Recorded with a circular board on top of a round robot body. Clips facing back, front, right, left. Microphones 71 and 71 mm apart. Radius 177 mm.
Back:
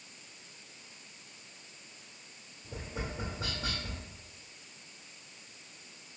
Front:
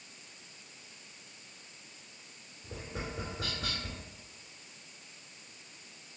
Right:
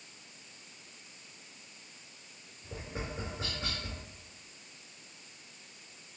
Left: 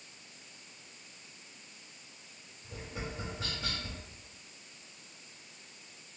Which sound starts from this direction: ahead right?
Tapping, at 2.6 s.